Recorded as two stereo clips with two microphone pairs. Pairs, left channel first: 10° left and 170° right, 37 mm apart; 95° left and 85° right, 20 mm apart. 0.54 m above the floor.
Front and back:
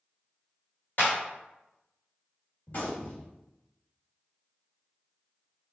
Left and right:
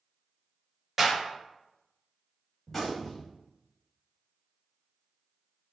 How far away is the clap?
About 1.6 m.